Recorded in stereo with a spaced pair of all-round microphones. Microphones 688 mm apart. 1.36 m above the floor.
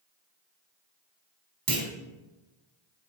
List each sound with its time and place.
1.7 s a clunk: 30° right (ahead or behind), 1.9 m